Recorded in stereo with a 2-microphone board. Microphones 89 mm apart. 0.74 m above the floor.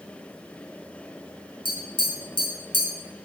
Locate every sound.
1.6 s tapping: 60° left (ahead or behind), 0.9 m